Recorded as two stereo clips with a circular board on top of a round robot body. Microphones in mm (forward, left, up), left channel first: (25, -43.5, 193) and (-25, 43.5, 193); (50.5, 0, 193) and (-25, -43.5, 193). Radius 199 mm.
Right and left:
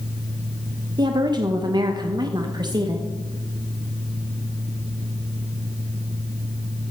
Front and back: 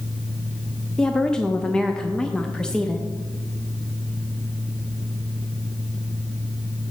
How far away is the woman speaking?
About 1.0 m.